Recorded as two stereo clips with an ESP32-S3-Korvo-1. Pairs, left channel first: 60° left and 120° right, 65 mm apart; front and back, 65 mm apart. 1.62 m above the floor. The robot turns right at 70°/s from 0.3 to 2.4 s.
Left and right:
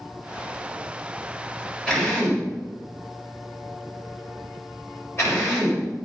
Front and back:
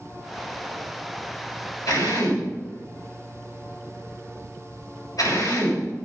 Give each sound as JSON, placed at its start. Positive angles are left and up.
{"t": 1.9, "sound": "a drill", "azimuth_deg": -25, "distance_m": 7.5}